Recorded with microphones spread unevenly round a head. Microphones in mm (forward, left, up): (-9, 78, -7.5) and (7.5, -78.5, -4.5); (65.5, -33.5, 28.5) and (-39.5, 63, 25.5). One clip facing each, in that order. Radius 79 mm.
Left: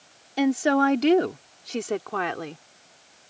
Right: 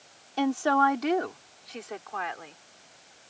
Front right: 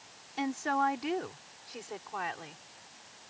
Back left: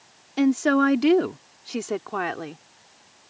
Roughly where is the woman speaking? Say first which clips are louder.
Left 3 dB, back left 12 dB; behind.